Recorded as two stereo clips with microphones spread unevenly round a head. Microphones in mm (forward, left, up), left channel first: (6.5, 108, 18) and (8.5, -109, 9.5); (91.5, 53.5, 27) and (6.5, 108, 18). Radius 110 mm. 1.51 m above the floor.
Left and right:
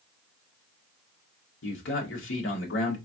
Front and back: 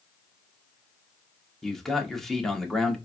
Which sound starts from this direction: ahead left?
A man speaking, at 1.6 s.